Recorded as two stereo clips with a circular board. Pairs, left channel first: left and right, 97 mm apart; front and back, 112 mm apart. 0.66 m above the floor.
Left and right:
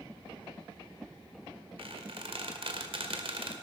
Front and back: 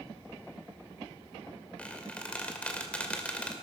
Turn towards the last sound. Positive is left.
turn(degrees=-80)